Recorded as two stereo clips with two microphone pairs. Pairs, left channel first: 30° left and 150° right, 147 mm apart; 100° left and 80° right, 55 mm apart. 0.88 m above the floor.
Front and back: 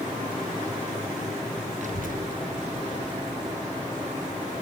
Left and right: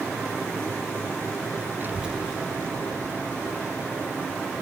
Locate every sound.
1.8 s a child speaking: 120° right, 0.7 m; by 4.2 s 145° left, 3 m